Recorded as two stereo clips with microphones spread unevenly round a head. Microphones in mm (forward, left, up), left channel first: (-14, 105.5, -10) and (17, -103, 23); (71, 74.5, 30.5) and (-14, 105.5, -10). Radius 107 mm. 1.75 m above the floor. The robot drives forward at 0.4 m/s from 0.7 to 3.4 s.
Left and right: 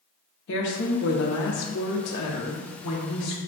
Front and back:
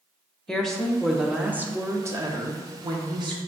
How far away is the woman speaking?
About 0.9 m.